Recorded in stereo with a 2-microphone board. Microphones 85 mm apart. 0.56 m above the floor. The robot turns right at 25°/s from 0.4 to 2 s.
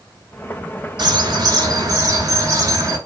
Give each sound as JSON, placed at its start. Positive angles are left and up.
{"t": 1.0, "sound": "a bird", "side_deg": -65, "distance_m": 2.5}